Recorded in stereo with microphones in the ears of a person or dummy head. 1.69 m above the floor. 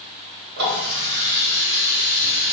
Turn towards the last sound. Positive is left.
turn(degrees=-65)  # may be behind; listen again after turning